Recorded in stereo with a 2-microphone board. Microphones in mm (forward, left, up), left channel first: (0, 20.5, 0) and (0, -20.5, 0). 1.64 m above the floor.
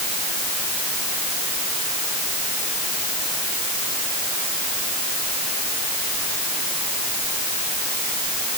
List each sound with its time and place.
Only background noise.